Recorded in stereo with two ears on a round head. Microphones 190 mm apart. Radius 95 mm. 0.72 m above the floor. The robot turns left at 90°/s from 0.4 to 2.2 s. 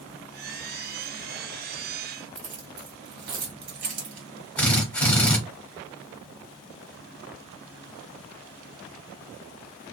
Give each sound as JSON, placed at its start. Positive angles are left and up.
{"t": 2.4, "sound": "keys jangling", "side_deg": -55, "distance_m": 1.5}
{"t": 4.6, "sound": "a drill", "side_deg": 5, "distance_m": 1.0}